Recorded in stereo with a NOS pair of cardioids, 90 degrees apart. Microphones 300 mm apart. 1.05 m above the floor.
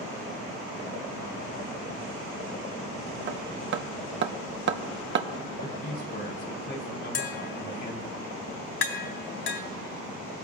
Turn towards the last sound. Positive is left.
turn(degrees=50)